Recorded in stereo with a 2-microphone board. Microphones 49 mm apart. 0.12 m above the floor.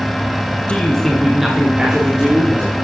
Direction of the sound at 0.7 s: 25° left (ahead or behind).